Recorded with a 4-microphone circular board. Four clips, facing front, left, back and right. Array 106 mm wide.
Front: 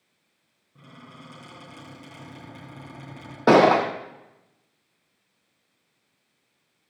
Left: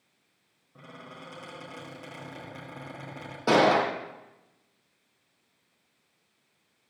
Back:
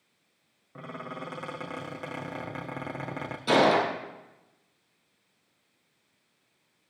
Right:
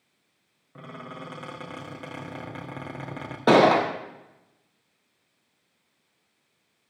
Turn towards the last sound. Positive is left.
turn(degrees=-20)